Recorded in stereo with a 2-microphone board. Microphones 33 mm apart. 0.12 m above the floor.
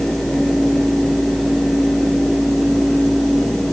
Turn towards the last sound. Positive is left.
No sound to turn to.